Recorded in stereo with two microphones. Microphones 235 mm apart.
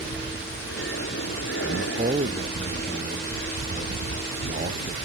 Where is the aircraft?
55° left (ahead or behind); by 5.0 s 70° left (ahead or behind).